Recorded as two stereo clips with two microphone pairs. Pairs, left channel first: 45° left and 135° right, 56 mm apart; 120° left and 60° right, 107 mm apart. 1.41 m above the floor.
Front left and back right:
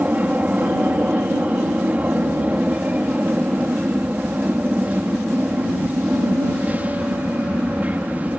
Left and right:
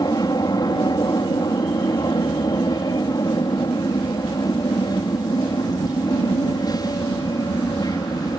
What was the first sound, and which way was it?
An aircraft, 170° left.